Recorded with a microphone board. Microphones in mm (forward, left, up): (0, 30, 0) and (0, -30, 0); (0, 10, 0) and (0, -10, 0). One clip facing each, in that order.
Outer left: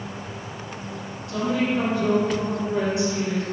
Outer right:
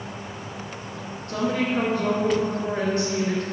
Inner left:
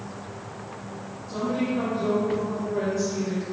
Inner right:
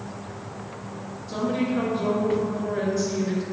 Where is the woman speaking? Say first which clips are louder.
Outer left 1 dB, inner right 1 dB; 40° right (ahead or behind), 2.5 m.